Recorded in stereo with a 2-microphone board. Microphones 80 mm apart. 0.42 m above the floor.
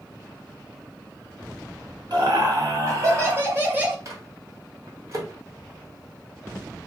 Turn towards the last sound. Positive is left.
turn(degrees=-40)  # may be behind; listen again after turning